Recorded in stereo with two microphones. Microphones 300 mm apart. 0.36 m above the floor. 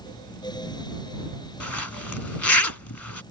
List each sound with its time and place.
1.6 s a zipper: 80° left